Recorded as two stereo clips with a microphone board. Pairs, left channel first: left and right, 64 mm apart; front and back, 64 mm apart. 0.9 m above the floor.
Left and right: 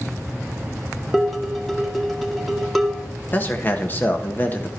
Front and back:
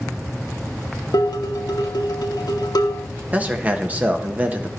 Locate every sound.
1.1 s dishes clattering: straight ahead, 1.0 m
3.3 s a man speaking: 130° left, 1.1 m